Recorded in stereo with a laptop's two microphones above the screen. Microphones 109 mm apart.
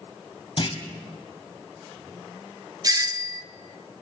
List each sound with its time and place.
0.6 s a clunk: 50° left (ahead or behind), 1.5 m
2.8 s a doorbell: 35° right (ahead or behind), 0.7 m